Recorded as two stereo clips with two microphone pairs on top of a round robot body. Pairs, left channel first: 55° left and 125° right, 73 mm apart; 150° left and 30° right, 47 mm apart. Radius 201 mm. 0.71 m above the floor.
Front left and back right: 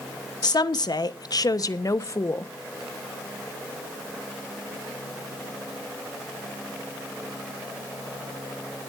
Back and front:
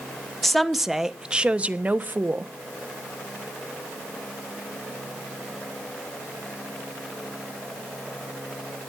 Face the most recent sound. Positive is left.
turn(degrees=5)